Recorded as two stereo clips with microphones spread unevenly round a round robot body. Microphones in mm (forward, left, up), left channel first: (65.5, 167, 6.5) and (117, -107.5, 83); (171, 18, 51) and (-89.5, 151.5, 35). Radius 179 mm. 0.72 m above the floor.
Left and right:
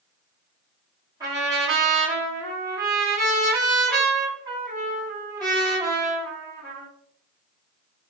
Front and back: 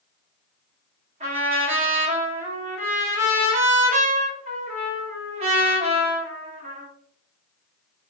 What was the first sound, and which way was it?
A trumpet, 170° right.